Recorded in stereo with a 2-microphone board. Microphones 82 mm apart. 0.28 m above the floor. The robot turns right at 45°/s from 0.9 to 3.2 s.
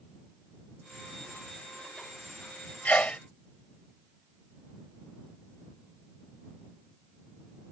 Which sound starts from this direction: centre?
A sneeze, at 2.9 s.